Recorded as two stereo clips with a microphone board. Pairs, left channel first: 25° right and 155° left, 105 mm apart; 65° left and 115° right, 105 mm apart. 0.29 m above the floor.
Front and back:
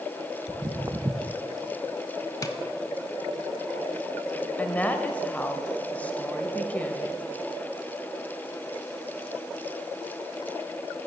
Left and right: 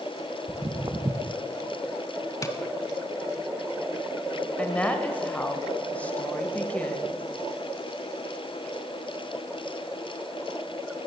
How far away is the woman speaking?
About 1.0 m.